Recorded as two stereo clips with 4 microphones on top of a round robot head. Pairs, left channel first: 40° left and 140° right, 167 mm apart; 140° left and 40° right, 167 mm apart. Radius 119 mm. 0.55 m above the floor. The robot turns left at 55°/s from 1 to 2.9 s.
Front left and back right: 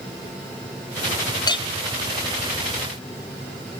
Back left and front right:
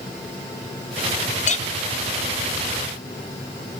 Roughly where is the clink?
Left.